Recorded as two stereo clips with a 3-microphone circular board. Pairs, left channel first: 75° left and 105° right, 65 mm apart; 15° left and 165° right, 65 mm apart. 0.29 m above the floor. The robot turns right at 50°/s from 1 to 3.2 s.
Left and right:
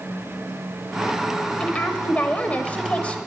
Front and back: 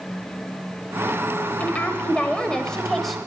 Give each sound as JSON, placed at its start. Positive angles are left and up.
{"t": 1.6, "sound": "a woman speaking", "azimuth_deg": 30, "distance_m": 1.3}